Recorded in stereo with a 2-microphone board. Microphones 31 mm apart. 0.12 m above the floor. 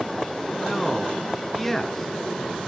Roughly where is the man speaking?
Centre.